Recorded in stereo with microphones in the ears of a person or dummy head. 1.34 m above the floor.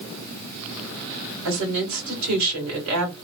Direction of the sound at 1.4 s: 75° right (ahead or behind).